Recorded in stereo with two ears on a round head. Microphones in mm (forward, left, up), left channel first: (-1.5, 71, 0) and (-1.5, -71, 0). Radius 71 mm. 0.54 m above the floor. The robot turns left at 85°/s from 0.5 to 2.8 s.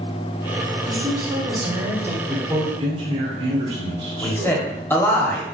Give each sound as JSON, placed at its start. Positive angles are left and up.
{"t": 0.8, "sound": "a woman speaking", "azimuth_deg": -50, "distance_m": 0.9}
{"t": 2.3, "sound": "a man speaking", "azimuth_deg": 0, "distance_m": 1.4}
{"t": 4.2, "sound": "a man speaking", "side_deg": 15, "distance_m": 0.7}